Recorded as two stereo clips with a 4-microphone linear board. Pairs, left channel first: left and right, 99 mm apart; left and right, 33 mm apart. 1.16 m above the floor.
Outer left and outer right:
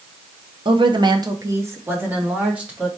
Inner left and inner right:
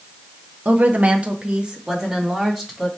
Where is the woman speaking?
55° right (ahead or behind), 0.6 m; by 2.9 s 10° right (ahead or behind), 1.8 m.